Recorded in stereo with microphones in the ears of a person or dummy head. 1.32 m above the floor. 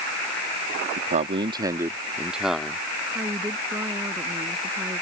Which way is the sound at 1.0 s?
40° right (ahead or behind).